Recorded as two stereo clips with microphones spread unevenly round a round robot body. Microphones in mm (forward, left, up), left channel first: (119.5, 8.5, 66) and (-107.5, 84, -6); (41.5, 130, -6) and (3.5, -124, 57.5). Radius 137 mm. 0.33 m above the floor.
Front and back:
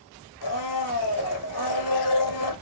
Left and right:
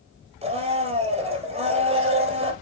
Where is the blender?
30° right, 1.9 m.